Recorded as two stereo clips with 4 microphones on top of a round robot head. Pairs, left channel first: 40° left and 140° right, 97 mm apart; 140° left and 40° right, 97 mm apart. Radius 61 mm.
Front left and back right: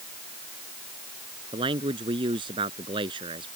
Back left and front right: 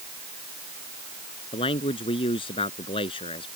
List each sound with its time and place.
1.5 s a man speaking: straight behind